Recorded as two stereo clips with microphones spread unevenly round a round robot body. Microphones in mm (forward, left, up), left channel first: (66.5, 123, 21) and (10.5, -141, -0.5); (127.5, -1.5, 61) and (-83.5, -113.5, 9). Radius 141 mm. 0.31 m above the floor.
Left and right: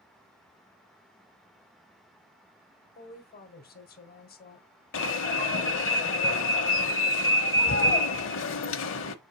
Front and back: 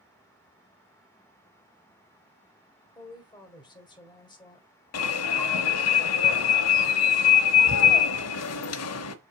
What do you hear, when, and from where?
3.0 s a woman speaking: 105° left, 1.7 m
4.9 s an alarm: 40° left, 1.0 m